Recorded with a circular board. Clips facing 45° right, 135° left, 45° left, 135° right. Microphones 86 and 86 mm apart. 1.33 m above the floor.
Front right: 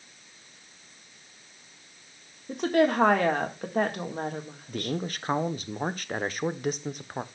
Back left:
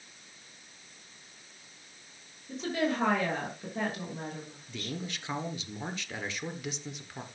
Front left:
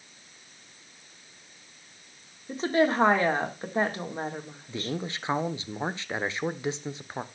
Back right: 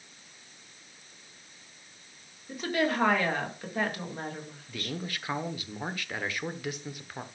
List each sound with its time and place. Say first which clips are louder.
2.5 s a woman speaking: front right 8 dB, front left 5 dB; 15° right, 1.7 m
4.7 s a man speaking: front right 7 dB, front left 4 dB; 15° right, 0.9 m